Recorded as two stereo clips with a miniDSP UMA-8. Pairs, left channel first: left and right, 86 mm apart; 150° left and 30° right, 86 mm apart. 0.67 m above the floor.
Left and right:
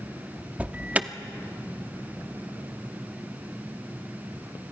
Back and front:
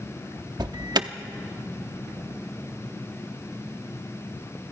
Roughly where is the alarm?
Ahead.